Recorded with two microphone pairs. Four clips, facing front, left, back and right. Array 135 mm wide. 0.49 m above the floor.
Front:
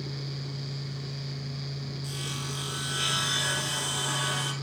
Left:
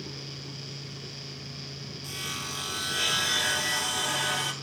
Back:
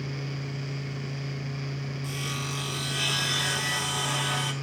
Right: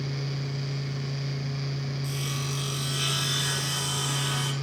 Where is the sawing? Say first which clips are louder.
Right 5 dB, back 3 dB; 135° left, 2.5 m.